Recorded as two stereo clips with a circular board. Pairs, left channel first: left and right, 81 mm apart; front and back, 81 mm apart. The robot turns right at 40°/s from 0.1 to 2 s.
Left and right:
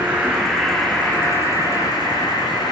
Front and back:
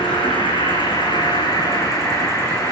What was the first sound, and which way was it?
An insect, 15° right.